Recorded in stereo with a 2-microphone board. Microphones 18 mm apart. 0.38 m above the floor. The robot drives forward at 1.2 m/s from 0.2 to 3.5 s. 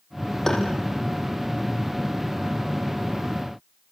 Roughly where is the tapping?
Left.